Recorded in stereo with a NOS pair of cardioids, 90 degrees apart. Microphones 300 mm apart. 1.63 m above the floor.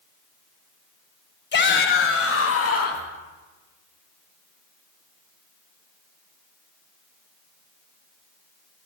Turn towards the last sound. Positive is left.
turn(degrees=55)